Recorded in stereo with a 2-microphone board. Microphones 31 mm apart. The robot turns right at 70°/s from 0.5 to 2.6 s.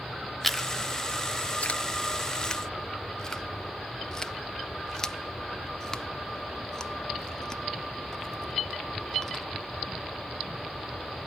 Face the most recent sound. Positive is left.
turn(degrees=20)  # may be behind; listen again after turning